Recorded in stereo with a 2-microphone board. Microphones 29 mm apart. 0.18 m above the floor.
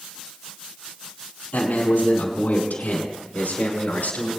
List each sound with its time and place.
1.5 s a man speaking: 75° left (ahead or behind), 4.5 m